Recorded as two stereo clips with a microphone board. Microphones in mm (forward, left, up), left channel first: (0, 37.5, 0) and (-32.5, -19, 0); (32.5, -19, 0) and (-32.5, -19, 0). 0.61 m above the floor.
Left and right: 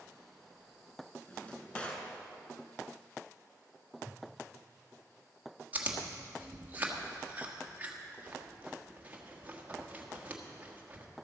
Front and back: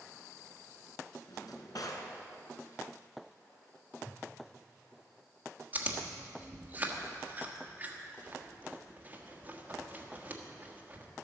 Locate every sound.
1.3 s a drawer: 10° right, 1.7 m
4.0 s a whoosh: 55° right, 2 m
5.7 s chewing: 155° right, 1.3 m